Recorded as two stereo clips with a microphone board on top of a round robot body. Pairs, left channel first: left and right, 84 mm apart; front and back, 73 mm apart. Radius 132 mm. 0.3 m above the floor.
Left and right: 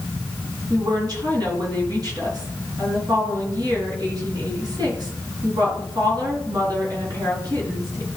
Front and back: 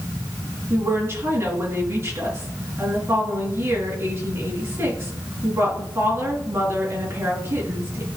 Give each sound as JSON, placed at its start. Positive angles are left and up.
{"t": 0.7, "sound": "a woman speaking", "azimuth_deg": -125, "distance_m": 4.5}